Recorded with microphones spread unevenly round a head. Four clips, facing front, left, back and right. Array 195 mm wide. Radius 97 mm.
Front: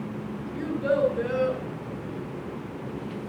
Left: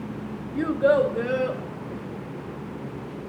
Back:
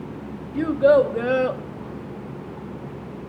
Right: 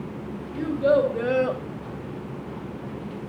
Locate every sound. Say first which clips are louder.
0.6 s a child speaking: left 1 dB, back 9 dB; 150° left, 1.1 m; by 1.6 s 145° right, 0.9 m